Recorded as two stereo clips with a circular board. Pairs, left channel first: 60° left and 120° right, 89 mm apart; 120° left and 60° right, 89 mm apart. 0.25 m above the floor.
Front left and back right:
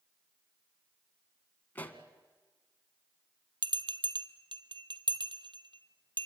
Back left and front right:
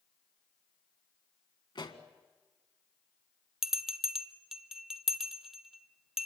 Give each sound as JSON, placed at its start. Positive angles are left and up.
{"t": 1.8, "sound": "a pop", "azimuth_deg": 130, "distance_m": 1.7}
{"t": 3.6, "sound": "a bell", "azimuth_deg": -145, "distance_m": 1.2}